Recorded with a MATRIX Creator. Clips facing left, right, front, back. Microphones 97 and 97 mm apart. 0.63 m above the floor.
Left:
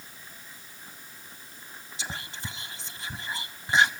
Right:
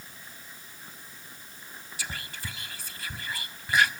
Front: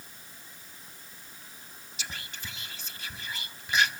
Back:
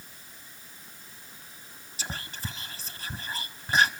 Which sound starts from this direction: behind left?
Whispering, at 2.0 s.